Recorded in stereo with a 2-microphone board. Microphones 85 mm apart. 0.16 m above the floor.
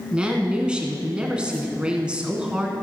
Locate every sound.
0.1 s a woman speaking: 10° right (ahead or behind), 1.6 m